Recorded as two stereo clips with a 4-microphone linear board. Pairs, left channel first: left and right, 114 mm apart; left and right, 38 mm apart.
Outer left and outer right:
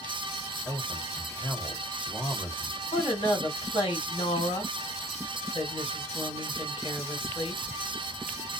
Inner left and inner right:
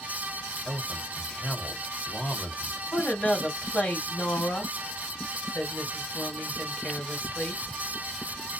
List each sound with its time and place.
0.7 s a man speaking: 30° left (ahead or behind), 1.3 m
2.9 s a woman speaking: 50° left (ahead or behind), 1.9 m